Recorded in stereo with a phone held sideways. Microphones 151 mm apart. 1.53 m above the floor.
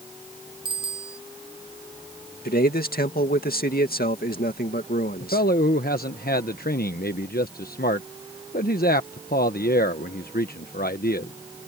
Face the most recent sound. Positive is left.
turn(degrees=85)